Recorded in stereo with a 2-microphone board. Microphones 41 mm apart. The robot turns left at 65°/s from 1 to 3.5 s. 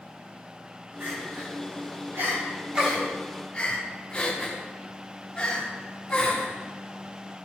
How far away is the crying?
About 3 m.